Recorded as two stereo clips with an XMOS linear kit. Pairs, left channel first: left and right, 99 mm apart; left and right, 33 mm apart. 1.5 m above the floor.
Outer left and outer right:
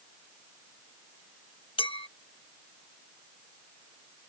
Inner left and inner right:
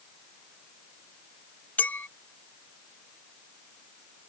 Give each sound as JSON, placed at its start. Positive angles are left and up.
{"t": 1.8, "sound": "a clink", "side_deg": 60}